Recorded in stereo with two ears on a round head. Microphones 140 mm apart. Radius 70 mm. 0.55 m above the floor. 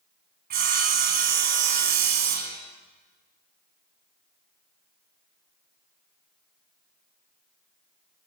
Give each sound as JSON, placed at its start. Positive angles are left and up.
{"t": 0.5, "sound": "sawing", "side_deg": -65, "distance_m": 2.5}